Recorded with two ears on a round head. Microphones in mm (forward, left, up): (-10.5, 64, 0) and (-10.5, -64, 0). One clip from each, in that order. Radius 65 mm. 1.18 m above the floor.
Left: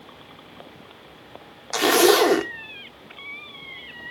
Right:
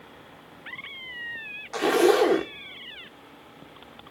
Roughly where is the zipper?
Left.